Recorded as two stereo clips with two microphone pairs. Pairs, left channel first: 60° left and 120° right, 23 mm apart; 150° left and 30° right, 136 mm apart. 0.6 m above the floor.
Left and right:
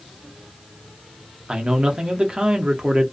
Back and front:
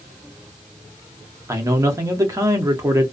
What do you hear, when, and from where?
1.5 s a man speaking: 90° right, 0.7 m